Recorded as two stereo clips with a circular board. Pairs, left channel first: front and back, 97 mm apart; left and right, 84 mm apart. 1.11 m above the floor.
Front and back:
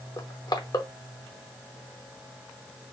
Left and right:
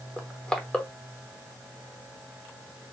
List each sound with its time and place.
0.2 s crushing: 15° left, 0.9 m